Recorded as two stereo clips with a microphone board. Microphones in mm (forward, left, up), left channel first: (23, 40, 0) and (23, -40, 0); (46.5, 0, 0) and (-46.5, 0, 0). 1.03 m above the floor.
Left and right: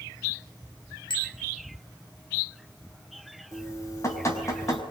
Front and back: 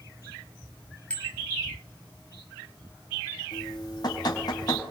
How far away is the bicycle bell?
About 4 m.